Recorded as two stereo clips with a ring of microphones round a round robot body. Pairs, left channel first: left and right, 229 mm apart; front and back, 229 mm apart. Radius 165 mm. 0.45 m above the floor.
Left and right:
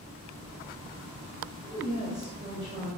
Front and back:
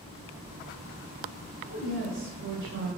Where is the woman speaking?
160° right, 2.5 m.